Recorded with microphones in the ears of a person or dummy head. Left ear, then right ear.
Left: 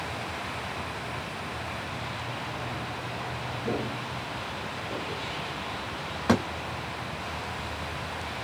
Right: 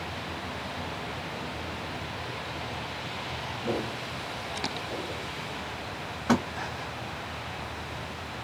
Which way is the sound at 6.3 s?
20° left (ahead or behind).